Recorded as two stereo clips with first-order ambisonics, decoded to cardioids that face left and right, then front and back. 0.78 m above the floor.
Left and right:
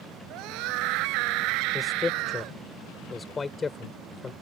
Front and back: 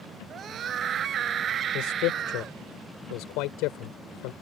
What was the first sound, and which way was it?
A scream, 120° right.